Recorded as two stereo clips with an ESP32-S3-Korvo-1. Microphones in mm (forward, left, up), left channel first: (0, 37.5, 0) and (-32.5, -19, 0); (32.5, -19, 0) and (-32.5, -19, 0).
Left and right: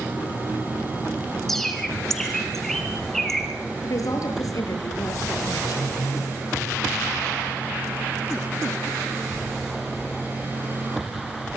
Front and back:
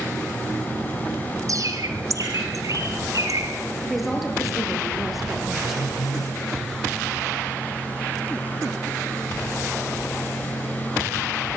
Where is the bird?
145° left, 3.5 m.